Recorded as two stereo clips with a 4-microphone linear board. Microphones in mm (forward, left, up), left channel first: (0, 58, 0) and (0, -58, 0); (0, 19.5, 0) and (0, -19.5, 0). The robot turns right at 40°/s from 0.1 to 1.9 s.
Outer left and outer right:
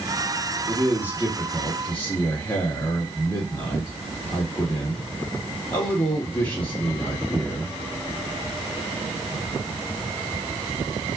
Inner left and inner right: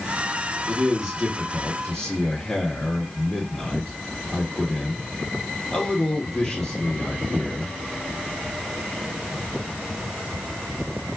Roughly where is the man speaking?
Ahead right.